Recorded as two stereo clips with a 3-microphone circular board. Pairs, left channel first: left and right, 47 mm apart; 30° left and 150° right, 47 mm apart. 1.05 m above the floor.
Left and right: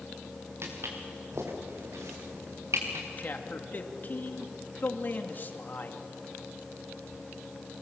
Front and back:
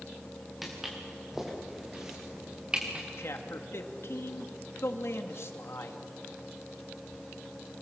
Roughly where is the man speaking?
Ahead left.